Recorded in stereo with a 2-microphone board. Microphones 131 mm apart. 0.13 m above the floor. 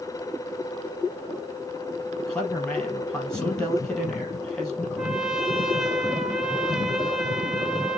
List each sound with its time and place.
2.2 s a man speaking: 5° left (ahead or behind), 4.5 m
5.0 s a trumpet: 5° right (ahead or behind), 1.0 m